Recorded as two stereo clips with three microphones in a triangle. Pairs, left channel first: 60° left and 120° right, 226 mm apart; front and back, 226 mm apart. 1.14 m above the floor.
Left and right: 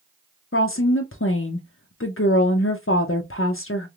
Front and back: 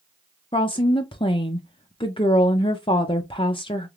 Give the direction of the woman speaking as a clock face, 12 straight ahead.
10 o'clock.